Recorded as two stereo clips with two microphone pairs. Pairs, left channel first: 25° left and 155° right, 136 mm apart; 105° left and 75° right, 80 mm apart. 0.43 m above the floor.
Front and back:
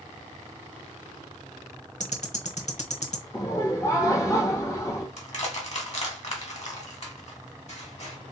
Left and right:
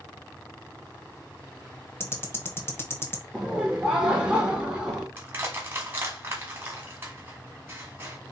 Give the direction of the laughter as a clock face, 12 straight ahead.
12 o'clock.